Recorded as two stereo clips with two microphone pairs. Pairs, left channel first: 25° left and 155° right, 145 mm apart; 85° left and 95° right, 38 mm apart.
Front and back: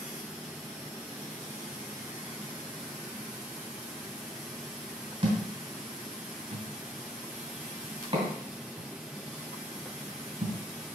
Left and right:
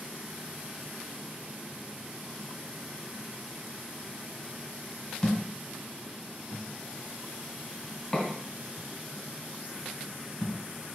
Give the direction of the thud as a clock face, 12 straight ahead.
7 o'clock.